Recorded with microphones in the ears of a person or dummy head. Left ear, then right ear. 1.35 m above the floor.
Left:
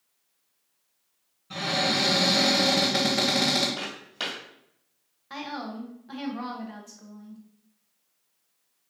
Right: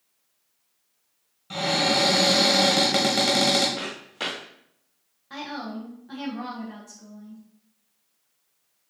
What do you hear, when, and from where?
1.5 s a cupboard door: 30° right (ahead or behind), 1.2 m
3.8 s footsteps: 20° left (ahead or behind), 2.0 m
5.3 s a woman speaking: 20° left (ahead or behind), 0.9 m